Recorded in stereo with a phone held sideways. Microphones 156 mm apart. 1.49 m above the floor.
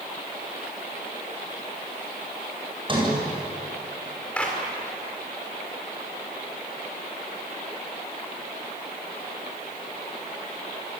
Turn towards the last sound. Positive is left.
turn(degrees=5)  # may be behind; listen again after turning